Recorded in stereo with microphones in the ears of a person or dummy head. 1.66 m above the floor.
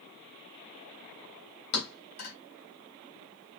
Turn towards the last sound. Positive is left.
turn(degrees=50)  # may be behind; listen again after turning